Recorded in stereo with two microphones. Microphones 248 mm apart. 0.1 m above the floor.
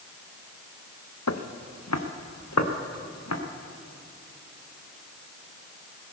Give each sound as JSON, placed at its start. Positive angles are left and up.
{"t": 1.3, "sound": "footsteps", "side_deg": 85, "distance_m": 1.0}